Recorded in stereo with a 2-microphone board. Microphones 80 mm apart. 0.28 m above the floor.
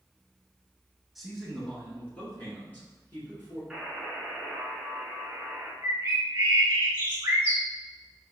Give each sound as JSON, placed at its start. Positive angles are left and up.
{"t": 1.1, "sound": "a man speaking", "side_deg": 0, "distance_m": 1.6}
{"t": 3.7, "sound": "a buzzer", "side_deg": -5, "distance_m": 1.3}
{"t": 5.8, "sound": "a bird", "side_deg": -35, "distance_m": 1.7}